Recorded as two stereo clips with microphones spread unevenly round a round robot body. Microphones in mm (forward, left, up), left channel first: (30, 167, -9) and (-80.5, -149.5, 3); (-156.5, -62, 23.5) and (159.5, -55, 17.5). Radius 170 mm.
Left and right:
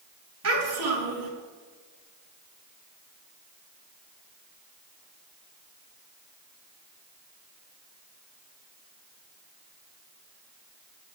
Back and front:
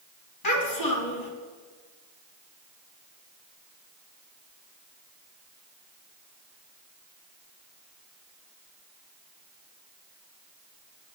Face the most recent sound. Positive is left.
turn(degrees=-155)